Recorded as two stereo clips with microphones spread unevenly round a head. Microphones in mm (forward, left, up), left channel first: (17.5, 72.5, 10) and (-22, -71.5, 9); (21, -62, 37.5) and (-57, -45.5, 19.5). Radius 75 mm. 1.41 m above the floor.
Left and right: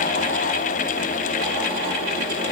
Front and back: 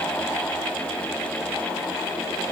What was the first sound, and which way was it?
Only background noise.